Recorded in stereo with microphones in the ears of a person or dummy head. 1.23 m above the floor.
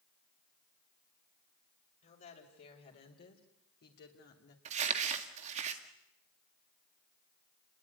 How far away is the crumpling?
About 2 m.